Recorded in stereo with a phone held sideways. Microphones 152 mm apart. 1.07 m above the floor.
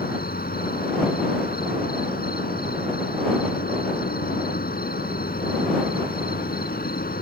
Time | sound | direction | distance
0.0 | an insect | 80° left | ?